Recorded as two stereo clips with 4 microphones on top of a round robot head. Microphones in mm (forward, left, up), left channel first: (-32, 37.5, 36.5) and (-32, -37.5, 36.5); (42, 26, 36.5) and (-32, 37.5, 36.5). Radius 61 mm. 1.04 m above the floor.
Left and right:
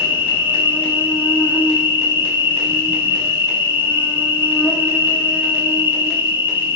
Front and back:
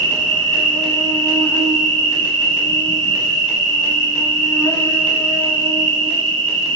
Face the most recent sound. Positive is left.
turn(degrees=40)